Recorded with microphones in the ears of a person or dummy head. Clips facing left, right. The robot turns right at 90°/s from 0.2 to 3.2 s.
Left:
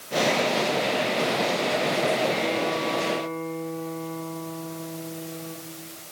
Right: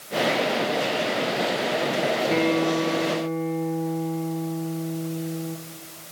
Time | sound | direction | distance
2.3 | a guitar | 95° right | 4 m